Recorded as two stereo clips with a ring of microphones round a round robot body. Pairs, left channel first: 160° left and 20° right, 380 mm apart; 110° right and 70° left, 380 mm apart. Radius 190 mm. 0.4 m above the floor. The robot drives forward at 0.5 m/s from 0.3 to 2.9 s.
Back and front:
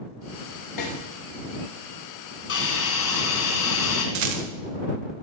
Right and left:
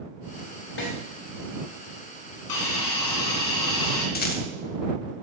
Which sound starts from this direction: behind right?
A hiss, at 2.5 s.